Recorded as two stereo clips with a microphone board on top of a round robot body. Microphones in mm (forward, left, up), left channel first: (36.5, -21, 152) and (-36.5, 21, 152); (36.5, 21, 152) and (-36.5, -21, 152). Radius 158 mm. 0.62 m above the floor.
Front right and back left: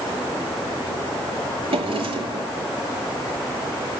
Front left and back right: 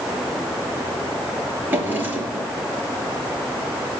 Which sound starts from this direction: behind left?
A drawer, at 1.7 s.